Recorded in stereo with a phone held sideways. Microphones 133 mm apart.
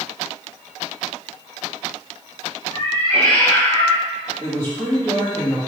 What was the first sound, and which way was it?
A cat meowing, 20° left (ahead or behind).